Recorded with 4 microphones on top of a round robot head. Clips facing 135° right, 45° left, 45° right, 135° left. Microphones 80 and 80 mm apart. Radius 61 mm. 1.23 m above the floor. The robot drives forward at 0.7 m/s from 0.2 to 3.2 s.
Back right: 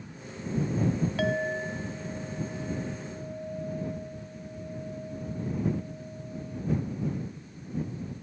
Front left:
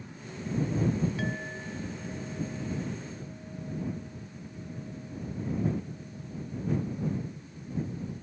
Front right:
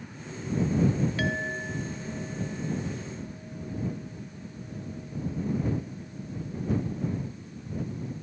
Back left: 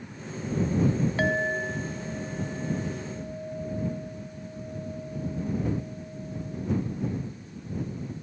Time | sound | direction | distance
1.2 | a clink | 160° right | ?